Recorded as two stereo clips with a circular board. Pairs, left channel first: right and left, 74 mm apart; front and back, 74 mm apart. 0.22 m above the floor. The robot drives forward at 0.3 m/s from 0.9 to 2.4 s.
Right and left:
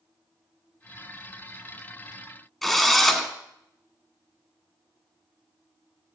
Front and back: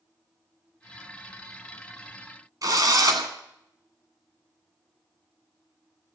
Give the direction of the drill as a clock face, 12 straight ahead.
6 o'clock.